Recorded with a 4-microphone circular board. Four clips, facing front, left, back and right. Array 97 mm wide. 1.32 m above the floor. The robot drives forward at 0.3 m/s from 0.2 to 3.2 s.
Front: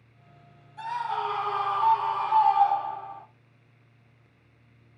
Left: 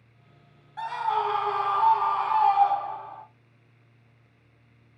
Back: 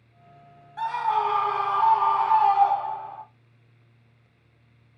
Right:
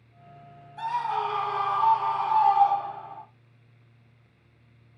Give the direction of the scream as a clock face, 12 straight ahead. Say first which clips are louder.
Left 1 dB, back 6 dB; 7 o'clock.